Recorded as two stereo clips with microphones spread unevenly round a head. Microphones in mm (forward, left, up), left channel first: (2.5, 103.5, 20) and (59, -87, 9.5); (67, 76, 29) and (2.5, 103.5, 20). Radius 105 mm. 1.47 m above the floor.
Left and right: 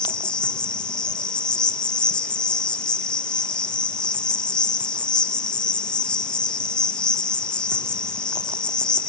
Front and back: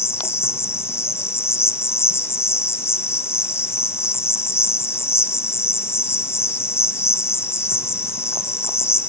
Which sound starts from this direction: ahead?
An insect, at 0.0 s.